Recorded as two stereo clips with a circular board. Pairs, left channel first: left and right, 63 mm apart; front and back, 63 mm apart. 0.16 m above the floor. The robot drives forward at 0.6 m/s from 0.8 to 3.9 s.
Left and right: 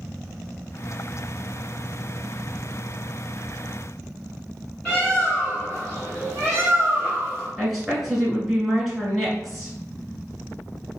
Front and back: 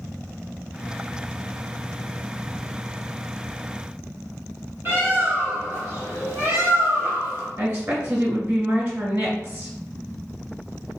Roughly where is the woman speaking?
Behind.